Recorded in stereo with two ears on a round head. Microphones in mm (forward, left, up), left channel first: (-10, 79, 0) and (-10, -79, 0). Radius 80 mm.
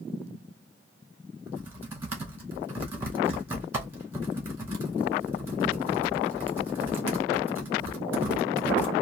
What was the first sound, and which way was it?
Typing on a keyboard, 10° right (ahead or behind).